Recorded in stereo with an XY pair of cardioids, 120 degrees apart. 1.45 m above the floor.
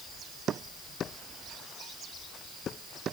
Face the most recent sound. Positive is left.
No sound to turn to.